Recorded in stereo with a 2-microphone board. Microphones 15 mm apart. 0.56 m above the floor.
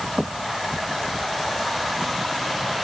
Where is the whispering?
I don't hear whispering.